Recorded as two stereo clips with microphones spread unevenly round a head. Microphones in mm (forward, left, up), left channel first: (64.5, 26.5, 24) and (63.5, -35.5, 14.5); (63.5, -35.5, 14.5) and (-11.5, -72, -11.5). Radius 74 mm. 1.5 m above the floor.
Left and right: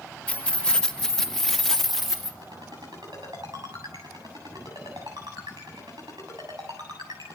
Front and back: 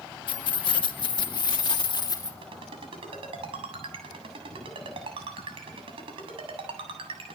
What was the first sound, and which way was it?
Keys jangling, 25° left.